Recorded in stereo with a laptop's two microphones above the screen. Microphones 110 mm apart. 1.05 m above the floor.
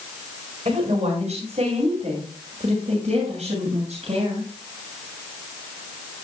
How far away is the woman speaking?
About 5 m.